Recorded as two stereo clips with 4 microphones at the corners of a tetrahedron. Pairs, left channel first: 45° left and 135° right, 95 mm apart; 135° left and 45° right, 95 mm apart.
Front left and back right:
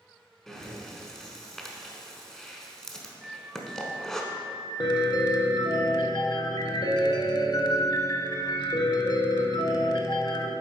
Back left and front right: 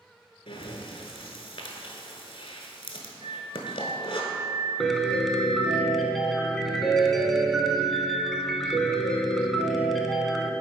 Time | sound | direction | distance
0.5 | breathing | 130° left | 1.0 m
3.2 | a flute | 50° right | 0.7 m
4.8 | a piano | 50° left | 0.6 m